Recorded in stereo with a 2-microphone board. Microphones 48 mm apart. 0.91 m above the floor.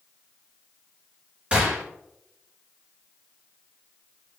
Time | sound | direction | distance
1.5 | a gunshot | 30° right (ahead or behind) | 2.5 m